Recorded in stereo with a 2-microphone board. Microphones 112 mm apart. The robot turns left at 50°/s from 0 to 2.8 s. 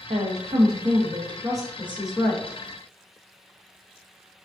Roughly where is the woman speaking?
Right.